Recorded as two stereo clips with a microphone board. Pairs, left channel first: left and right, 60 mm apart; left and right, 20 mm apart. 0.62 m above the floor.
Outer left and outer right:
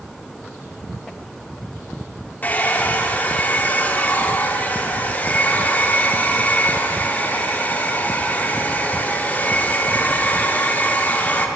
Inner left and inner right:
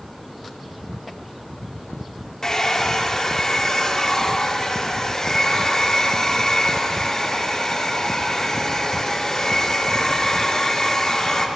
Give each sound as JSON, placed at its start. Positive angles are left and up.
{"t": 2.4, "sound": "a hair dryer", "side_deg": 30, "distance_m": 1.3}